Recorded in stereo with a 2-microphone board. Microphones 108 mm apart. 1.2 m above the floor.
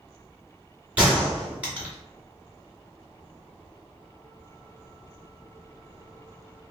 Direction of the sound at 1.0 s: 15° right (ahead or behind).